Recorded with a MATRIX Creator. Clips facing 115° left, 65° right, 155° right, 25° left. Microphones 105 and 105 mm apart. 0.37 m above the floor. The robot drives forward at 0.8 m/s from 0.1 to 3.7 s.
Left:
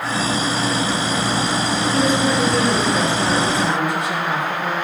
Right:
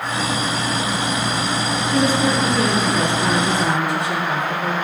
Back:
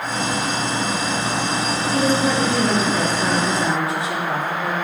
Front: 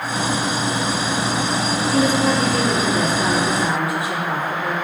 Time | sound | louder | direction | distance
1.9 | a woman speaking | right 1 dB, front 1 dB | 85° right | 6 m